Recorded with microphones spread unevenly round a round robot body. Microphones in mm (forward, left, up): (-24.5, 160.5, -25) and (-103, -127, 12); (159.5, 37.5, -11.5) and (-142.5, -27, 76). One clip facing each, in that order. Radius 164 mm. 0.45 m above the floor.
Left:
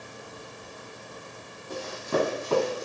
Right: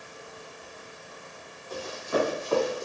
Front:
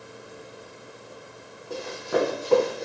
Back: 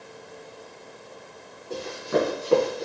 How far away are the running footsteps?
About 1.0 m.